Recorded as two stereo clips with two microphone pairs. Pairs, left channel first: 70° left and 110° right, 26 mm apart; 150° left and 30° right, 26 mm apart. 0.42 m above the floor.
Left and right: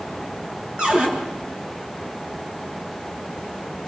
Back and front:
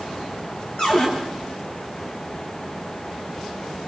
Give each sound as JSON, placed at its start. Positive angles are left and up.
{"t": 0.8, "sound": "a cupboard door", "azimuth_deg": -160, "distance_m": 6.0}